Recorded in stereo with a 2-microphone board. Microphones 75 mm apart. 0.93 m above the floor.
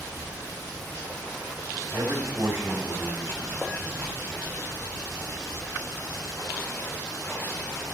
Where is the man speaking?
35° right (ahead or behind), 1.9 m.